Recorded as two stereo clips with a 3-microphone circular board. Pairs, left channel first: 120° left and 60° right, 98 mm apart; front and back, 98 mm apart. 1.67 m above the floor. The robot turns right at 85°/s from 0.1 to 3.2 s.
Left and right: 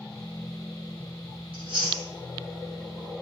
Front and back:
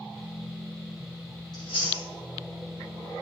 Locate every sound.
1.5 s chewing: 40° right, 4 m; by 2.0 s 5° left, 4 m